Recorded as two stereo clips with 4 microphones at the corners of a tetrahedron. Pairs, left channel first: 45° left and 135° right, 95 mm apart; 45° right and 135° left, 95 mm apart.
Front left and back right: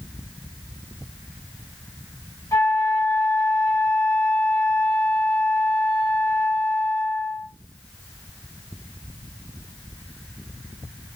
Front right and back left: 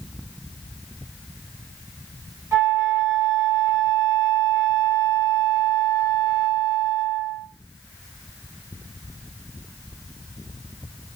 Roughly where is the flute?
Left.